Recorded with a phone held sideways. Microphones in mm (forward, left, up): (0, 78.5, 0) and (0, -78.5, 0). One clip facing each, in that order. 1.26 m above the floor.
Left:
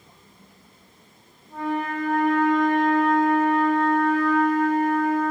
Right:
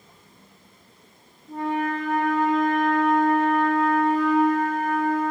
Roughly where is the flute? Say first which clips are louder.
Right 1 dB; centre.